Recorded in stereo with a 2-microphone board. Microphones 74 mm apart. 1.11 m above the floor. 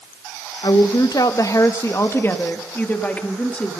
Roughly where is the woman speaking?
Left.